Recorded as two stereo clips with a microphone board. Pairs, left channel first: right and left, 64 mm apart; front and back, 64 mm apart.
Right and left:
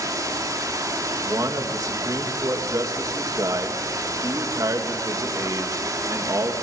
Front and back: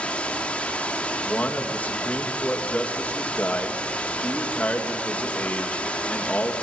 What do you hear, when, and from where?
0.0 s running water: 70° left, 2.5 m
1.2 s a man speaking: 65° left, 2.5 m